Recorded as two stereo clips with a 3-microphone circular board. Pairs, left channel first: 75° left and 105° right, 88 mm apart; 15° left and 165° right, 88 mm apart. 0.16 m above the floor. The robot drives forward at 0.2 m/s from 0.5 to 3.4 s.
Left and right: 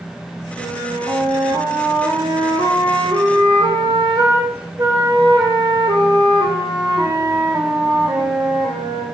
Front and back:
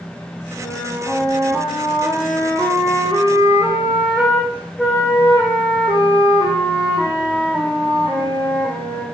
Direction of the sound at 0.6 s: 90° right.